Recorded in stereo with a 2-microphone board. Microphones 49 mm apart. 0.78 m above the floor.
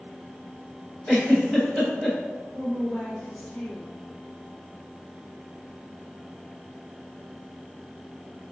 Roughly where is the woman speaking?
Centre.